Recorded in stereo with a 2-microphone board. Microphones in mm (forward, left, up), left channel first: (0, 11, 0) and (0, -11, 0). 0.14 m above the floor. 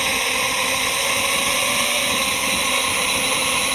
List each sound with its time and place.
0.0 s a drone: centre (ahead or behind); by 3.8 s 5° left (ahead or behind)